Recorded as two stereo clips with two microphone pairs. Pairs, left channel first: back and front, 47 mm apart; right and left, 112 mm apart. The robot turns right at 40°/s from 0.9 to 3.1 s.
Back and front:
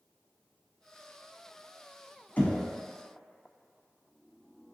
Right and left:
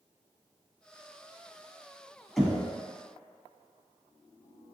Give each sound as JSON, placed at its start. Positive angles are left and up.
{"t": 2.4, "sound": "knocking", "azimuth_deg": 180, "distance_m": 0.9}